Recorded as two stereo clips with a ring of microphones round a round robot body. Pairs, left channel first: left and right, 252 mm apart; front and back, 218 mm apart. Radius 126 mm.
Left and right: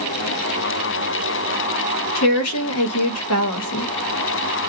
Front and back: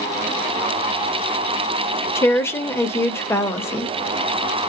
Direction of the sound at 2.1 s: 75° left.